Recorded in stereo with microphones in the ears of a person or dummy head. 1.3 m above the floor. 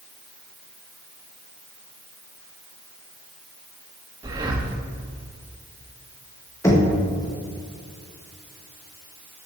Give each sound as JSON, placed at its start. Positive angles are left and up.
{"t": 4.2, "sound": "breathing", "side_deg": -25, "distance_m": 1.1}
{"t": 6.6, "sound": "knocking", "side_deg": 15, "distance_m": 1.5}